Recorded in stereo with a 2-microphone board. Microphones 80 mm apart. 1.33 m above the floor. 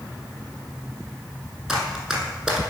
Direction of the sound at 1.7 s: Centre (ahead or behind).